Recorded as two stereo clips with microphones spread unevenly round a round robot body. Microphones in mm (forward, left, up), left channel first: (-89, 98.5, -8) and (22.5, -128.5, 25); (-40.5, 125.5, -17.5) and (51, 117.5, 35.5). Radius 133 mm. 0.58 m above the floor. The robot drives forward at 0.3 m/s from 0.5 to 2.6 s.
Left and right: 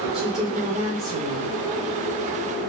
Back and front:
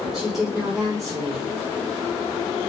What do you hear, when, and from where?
0.1 s a woman speaking: 165° right, 1.3 m; by 1.5 s 170° right, 1.5 m